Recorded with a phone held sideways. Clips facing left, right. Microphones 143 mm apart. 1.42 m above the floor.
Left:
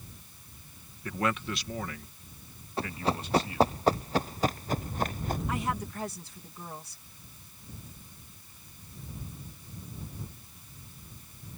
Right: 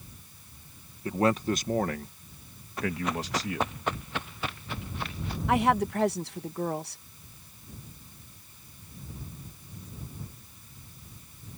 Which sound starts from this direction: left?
Running footsteps, at 2.8 s.